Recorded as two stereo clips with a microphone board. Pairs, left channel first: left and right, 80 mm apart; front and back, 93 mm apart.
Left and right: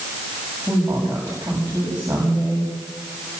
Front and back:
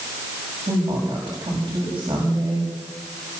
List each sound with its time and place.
0.7 s a woman speaking: 150° right, 8.5 m